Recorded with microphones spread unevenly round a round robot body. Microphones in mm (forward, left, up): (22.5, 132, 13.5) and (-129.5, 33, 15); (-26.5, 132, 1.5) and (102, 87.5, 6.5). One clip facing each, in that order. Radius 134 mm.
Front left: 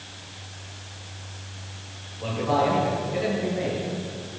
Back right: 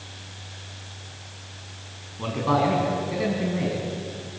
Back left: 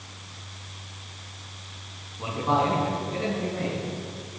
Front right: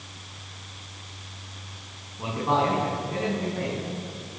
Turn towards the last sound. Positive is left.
turn(degrees=-105)